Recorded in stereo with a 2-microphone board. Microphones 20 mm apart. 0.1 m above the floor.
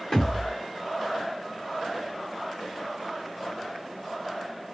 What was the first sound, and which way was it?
A thud, 50° left (ahead or behind).